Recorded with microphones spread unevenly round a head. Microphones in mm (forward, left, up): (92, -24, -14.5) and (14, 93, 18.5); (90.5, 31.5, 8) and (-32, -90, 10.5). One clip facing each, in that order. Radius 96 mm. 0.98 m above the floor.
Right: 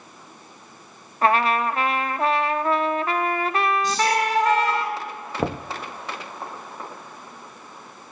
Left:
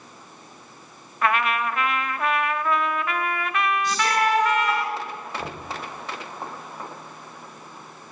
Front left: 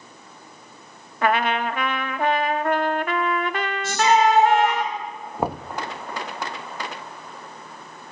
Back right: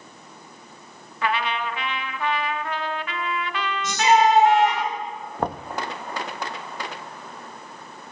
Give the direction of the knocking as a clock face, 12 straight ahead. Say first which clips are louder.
Right 8 dB, front left 2 dB; 1 o'clock.